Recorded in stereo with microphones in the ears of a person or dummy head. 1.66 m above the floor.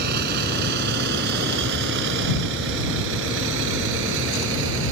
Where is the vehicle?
50° right (ahead or behind); by 4.9 s 70° right (ahead or behind).